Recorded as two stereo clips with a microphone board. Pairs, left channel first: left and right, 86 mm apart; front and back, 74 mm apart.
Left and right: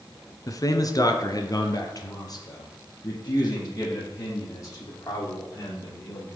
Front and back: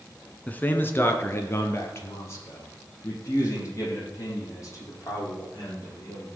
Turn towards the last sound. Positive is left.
turn(degrees=45)